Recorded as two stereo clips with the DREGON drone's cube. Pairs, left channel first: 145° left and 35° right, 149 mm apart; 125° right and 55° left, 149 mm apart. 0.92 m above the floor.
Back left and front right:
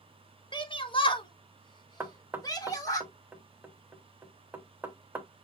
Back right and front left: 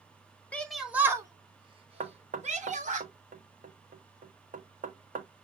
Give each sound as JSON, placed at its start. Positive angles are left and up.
{"t": 0.5, "sound": "a shout", "azimuth_deg": 165, "distance_m": 0.7}
{"t": 2.0, "sound": "knocking", "azimuth_deg": 45, "distance_m": 1.0}